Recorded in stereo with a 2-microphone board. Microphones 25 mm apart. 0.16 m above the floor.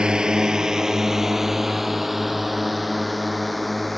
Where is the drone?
30° right (ahead or behind); by 4.0 s 5° left (ahead or behind).